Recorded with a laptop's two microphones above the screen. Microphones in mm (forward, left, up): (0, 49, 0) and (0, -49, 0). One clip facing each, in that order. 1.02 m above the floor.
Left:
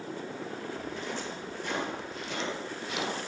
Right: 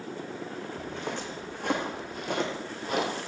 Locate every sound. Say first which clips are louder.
0.8 s footsteps: right 1 dB; 65° right (ahead or behind), 4 m; by 3.1 s 50° right (ahead or behind), 2 m